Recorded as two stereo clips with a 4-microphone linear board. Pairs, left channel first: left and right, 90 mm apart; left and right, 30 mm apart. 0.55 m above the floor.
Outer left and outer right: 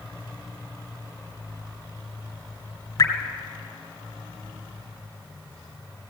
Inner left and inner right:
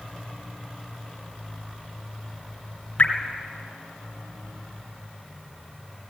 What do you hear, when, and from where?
3.0 s dripping: 40° left (ahead or behind), 2.5 m